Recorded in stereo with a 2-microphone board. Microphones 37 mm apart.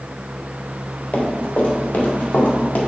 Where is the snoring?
No snoring in this recording.